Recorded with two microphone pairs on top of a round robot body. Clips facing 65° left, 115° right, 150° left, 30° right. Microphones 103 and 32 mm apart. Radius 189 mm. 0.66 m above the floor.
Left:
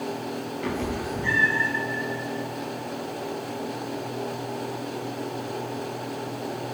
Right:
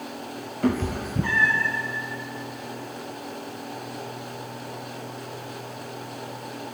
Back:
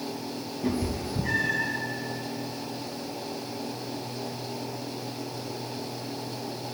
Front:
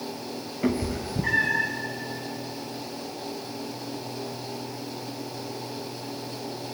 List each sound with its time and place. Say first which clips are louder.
0.6 s a cat meowing: right 6 dB, front 3 dB; 65° right, 1.8 m; by 1.7 s 80° right, 2.5 m